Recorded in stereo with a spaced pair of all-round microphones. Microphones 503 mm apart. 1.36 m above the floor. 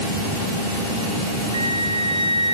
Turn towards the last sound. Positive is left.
turn(degrees=-10)  # may be behind; listen again after turning